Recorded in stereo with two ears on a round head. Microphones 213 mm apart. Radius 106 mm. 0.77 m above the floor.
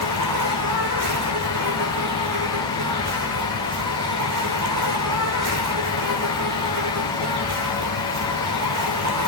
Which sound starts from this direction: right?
An insect, at 0.0 s.